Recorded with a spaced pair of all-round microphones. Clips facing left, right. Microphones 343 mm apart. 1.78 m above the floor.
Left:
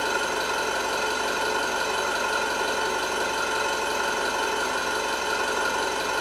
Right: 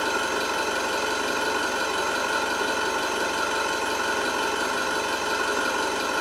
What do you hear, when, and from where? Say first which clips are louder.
0.0 s an engine running: right 1 dB; 25° right (ahead or behind), 0.8 m